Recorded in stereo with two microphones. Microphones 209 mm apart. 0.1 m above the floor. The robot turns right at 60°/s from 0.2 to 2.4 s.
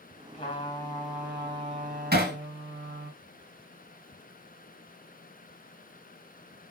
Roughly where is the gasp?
No gasp in this recording.